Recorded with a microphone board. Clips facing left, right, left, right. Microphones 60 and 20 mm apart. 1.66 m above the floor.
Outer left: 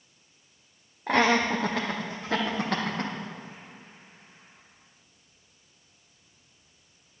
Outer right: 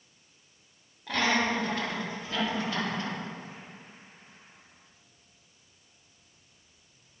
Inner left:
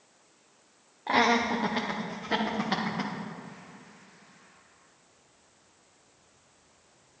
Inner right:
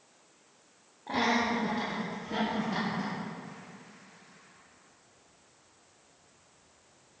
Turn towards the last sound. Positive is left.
turn(degrees=60)  # may be behind; listen again after turning